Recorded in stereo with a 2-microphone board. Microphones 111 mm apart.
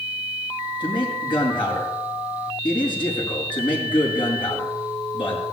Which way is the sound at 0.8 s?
45° left (ahead or behind).